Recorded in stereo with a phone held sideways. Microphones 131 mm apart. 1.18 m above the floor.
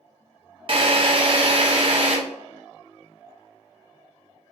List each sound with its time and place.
0.7 s a drill: 45° right (ahead or behind), 0.7 m